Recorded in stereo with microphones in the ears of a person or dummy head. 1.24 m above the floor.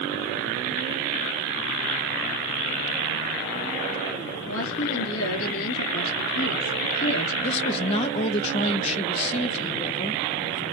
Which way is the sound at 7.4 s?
40° left (ahead or behind).